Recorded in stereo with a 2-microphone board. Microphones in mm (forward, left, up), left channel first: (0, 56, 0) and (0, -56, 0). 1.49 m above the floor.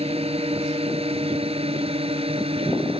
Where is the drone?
65° right (ahead or behind); by 3.0 s 60° right (ahead or behind).